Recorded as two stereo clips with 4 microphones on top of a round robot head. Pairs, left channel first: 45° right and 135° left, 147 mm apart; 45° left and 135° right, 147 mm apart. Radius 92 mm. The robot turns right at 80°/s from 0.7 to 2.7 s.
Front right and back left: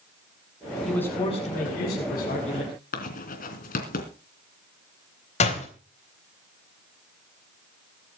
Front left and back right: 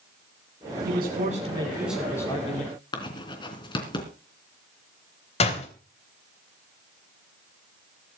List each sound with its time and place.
0.8 s a man speaking: 135° right, 7.5 m; by 2.7 s 15° left, 7.5 m
2.9 s writing: 15° right, 3 m
5.4 s a door slam: straight ahead, 3.5 m